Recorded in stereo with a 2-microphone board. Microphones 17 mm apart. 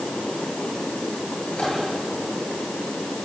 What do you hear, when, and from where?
1.5 s a microwave: 80° left, 9 m